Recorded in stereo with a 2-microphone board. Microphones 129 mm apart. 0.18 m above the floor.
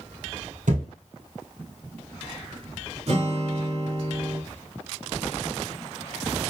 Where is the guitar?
55° right (ahead or behind), 2.5 m.